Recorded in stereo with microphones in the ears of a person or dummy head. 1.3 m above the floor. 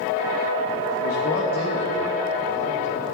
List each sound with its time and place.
1.0 s a man speaking: 50° left (ahead or behind), 1.4 m; by 3.1 s 10° right (ahead or behind), 1.7 m